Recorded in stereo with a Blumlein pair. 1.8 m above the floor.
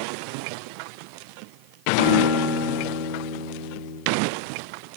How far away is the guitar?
About 4 m.